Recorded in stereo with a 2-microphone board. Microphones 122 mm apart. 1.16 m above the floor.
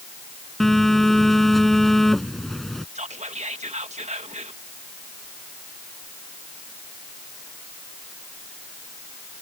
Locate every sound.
0.6 s a phone buzzing: centre (ahead or behind)
3.0 s whispering: 65° right (ahead or behind)